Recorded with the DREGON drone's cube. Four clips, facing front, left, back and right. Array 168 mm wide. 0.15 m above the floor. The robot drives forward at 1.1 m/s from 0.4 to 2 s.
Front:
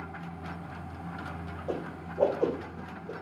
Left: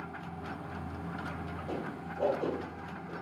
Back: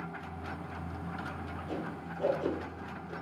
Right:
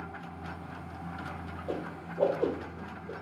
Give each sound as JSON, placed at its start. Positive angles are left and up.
{"t": 1.7, "sound": "a whoosh", "azimuth_deg": -15, "distance_m": 2.5}